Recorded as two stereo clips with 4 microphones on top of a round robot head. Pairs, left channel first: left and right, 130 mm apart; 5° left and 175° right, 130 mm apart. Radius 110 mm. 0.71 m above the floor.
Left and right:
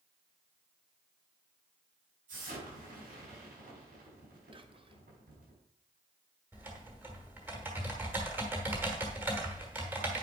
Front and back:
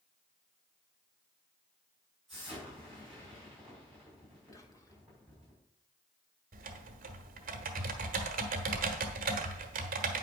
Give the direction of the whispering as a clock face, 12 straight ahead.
2 o'clock.